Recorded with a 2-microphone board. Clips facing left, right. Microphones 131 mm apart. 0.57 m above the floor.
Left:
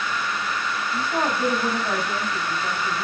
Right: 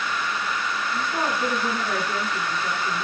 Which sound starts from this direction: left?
A woman speaking, at 0.9 s.